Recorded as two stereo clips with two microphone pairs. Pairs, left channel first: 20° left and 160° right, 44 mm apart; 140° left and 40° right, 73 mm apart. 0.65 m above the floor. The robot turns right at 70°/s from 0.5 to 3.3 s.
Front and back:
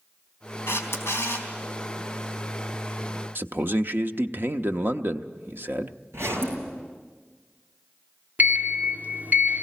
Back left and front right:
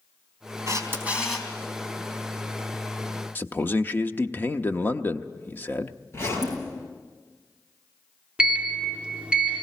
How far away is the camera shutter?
About 3.5 m.